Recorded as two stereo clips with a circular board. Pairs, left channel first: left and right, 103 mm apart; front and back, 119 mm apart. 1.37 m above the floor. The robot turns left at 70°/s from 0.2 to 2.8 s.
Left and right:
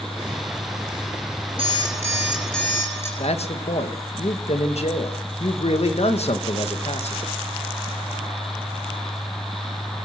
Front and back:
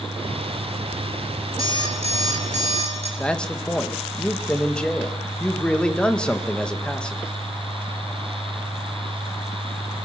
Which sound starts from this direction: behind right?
An alarm clock, at 1.6 s.